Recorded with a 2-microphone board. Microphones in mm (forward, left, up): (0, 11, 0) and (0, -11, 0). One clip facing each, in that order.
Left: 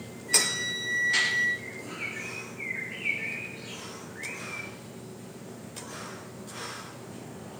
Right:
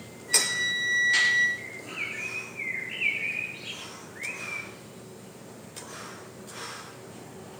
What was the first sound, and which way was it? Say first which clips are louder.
A flute: right 1 dB; 30° right (ahead or behind).